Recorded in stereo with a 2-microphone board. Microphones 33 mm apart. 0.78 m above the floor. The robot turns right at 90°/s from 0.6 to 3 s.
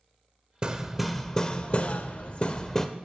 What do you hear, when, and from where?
0.6 s hammering: 40° right, 0.5 m; by 2.9 s 165° left, 0.5 m